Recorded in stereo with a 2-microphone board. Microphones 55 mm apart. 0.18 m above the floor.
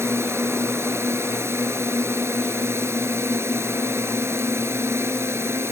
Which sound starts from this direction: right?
A drone, at 0.0 s.